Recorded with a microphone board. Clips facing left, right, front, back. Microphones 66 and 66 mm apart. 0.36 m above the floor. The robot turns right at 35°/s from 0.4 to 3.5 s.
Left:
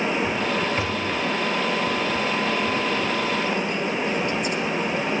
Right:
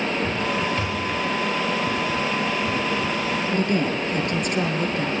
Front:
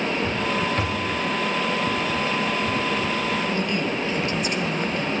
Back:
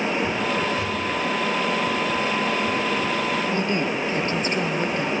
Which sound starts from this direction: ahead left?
A thud, at 0.8 s.